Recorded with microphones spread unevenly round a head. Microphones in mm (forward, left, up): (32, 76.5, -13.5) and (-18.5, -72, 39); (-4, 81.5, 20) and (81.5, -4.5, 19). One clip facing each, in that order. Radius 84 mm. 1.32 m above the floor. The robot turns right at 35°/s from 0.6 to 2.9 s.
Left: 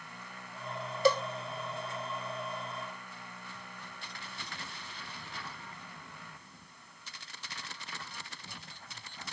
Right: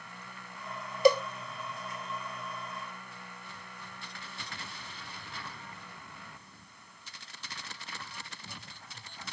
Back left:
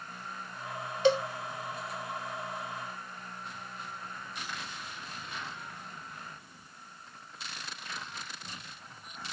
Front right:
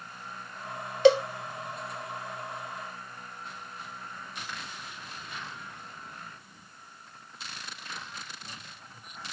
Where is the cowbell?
30° right, 0.5 m; by 1.2 s 20° right, 0.5 m.